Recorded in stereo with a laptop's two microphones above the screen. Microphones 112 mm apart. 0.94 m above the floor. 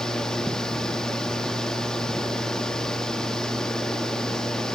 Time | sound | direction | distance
0.0 | a fan | 5° left (ahead or behind) | 0.9 m